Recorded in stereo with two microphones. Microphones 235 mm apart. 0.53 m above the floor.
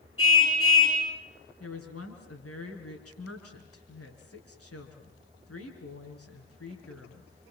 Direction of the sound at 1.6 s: 80° left.